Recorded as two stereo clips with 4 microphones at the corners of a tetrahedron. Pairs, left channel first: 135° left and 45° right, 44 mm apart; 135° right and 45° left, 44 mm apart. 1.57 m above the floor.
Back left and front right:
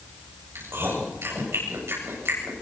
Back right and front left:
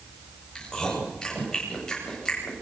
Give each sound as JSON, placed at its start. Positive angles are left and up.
{"t": 0.6, "sound": "chewing", "azimuth_deg": -60, "distance_m": 9.5}